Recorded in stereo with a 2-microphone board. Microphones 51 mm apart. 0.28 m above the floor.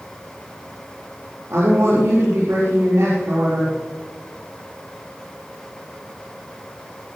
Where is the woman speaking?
65° right (ahead or behind), 7.5 m.